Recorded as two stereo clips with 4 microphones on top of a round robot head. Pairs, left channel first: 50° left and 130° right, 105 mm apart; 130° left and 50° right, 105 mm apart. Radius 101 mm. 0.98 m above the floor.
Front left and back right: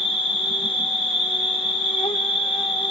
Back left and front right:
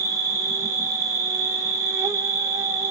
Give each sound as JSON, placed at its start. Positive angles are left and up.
{"t": 0.0, "sound": "an insect", "azimuth_deg": 15, "distance_m": 1.1}